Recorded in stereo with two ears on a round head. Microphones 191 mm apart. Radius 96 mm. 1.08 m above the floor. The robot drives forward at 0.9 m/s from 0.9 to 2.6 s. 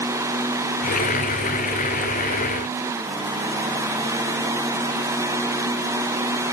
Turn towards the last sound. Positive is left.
No sound to turn to.